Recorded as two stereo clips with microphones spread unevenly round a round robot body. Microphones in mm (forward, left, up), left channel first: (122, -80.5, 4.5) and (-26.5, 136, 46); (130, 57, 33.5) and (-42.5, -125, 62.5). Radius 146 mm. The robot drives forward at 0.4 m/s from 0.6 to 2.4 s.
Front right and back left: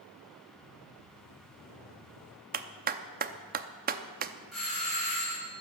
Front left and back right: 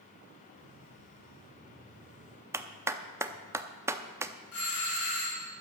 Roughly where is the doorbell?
Ahead left.